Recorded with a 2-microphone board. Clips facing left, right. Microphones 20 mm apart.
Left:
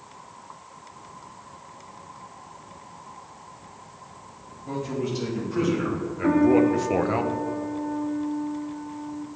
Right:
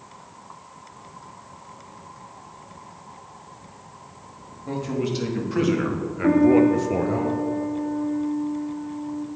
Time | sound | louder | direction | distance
4.7 | a man speaking | right 2 dB | 35° right (ahead or behind) | 2.5 m
6.2 | a piano | right 2 dB | centre (ahead or behind) | 0.9 m